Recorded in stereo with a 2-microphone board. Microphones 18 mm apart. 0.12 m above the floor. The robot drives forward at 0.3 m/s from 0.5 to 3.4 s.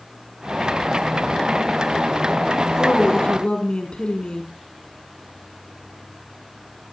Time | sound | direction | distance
2.8 | a woman speaking | 70° left (ahead or behind) | 4.5 m